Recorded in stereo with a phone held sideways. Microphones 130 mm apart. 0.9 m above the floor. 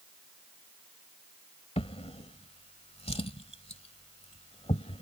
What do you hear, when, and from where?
1.8 s a drawer: 50° left (ahead or behind)